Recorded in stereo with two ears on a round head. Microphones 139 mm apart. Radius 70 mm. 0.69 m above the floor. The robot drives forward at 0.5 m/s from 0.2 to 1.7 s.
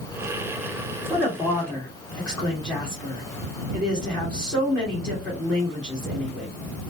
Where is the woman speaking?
10° left (ahead or behind), 1.2 m; by 6.5 s 5° left (ahead or behind), 1.4 m.